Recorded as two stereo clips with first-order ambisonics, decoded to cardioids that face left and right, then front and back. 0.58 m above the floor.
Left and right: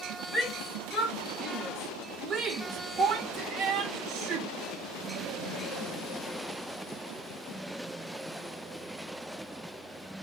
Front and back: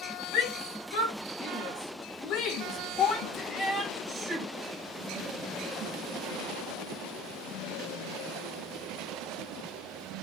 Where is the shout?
15° right, 2.5 m; by 4.5 s 115° right, 0.9 m.